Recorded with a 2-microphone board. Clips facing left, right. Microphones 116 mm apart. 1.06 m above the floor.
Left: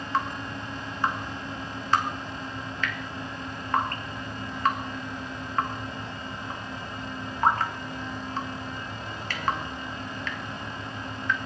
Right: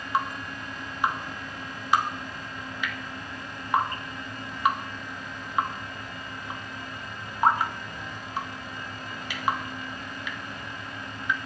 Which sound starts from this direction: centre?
Dripping, at 0.1 s.